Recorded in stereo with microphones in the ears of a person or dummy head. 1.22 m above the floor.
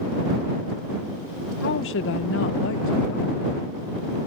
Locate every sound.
1.6 s a woman speaking: 60° left (ahead or behind)